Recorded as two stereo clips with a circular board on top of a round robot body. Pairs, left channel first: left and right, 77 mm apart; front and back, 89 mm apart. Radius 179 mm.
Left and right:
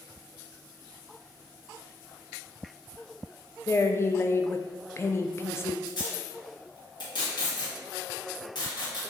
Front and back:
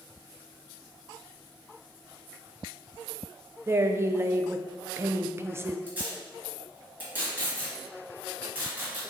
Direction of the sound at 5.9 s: 110° left.